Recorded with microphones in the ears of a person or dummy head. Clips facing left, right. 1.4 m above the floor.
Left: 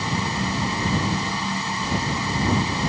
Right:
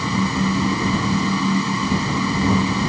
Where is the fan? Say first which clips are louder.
Right 6 dB; 85° right.